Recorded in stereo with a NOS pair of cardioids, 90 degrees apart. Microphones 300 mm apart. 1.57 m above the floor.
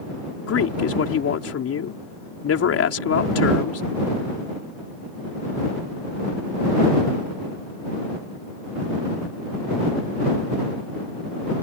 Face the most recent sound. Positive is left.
turn(degrees=50)